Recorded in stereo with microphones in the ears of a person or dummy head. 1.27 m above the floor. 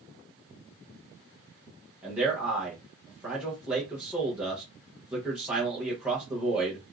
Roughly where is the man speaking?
Centre.